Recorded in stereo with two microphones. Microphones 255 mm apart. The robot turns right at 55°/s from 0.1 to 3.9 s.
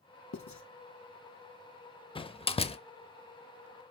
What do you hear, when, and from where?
0.3 s writing: 85° left, 1.0 m; by 0.6 s 80° left, 1.0 m
2.1 s a door slam: 20° left (ahead or behind), 0.5 m